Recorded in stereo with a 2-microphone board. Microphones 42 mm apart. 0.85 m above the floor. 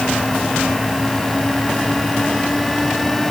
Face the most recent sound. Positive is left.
No sound to turn to.